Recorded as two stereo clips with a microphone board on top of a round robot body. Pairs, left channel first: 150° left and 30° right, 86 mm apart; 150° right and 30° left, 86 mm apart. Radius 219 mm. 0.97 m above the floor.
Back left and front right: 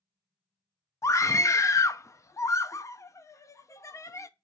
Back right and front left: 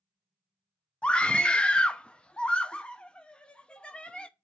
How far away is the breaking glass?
No breaking glass in this recording.